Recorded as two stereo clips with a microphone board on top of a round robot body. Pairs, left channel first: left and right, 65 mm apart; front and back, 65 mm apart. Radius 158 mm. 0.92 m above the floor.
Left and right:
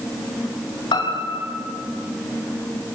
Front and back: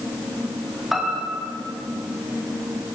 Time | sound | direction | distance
0.9 | a piano | 90° left | 3 m